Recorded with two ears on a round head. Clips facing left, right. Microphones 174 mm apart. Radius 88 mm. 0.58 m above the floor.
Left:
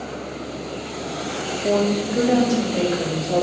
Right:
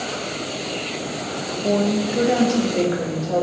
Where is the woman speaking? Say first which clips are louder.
Even; 10° right (ahead or behind), 0.7 m; by 3.4 s 30° right (ahead or behind), 2 m.